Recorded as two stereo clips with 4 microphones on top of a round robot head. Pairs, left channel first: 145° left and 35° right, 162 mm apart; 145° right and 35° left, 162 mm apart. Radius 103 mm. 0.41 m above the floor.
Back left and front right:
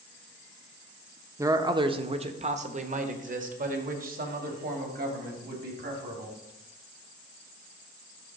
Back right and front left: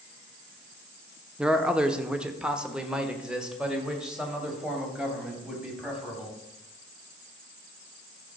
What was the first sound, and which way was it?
A man speaking, 40° right.